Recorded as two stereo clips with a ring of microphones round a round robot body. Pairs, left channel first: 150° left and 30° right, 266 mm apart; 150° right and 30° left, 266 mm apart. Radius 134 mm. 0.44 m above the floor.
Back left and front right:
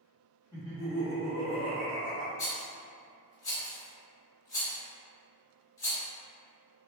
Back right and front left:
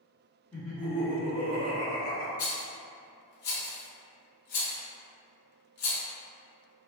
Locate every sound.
0.5 s laughter: 80° right, 1.1 m; by 2.3 s straight ahead, 1.6 m
2.4 s a rattle: 135° right, 0.9 m